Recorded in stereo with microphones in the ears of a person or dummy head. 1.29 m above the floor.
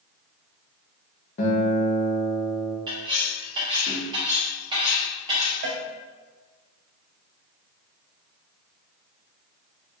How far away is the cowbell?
About 0.6 m.